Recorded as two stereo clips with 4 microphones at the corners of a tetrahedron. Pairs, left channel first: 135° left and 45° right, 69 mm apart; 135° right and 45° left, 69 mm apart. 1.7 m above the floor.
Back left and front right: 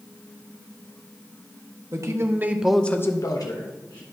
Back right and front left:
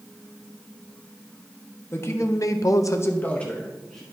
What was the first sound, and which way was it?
A man speaking, 85° right.